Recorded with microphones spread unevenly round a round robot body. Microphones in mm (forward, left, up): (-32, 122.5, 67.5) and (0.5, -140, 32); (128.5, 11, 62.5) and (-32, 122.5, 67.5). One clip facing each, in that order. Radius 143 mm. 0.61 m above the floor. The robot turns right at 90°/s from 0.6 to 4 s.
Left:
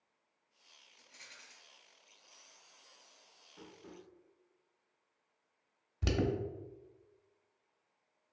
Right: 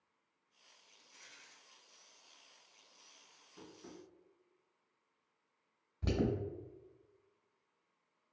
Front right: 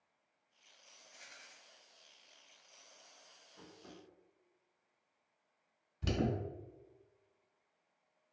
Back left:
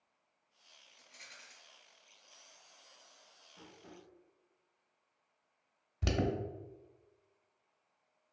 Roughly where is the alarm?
Behind left.